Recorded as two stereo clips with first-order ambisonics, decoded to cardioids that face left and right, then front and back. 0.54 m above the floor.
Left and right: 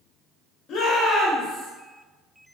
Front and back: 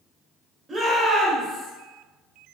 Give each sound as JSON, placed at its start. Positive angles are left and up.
{"t": 0.7, "sound": "a shout", "azimuth_deg": 110, "distance_m": 0.9}